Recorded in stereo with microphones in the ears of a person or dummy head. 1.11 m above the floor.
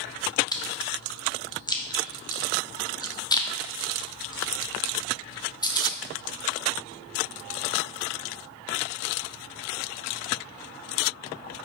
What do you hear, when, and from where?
0.5 s chewing: 20° left (ahead or behind), 0.7 m